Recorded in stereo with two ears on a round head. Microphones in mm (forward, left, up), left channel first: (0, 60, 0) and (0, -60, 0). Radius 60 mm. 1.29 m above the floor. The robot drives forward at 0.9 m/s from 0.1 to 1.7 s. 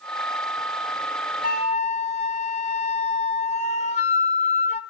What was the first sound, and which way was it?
A flute, 70° left (ahead or behind).